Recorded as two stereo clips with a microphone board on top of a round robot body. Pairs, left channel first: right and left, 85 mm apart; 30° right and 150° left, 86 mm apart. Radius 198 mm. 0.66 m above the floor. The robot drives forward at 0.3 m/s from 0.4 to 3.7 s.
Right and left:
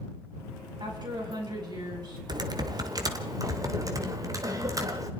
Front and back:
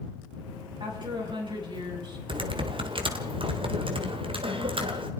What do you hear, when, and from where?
0.8 s a woman speaking: 125° left, 6.5 m
2.3 s typing on a keyboard: 130° left, 1.6 m; by 5.1 s 140° left, 1.9 m